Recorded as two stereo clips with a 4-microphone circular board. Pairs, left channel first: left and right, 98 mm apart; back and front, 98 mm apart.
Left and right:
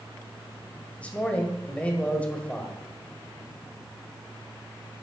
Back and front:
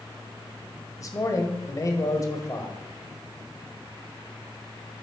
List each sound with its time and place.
1.0 s a man speaking: 160° left, 1.6 m